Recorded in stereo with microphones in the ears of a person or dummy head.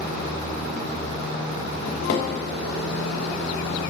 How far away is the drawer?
About 3 m.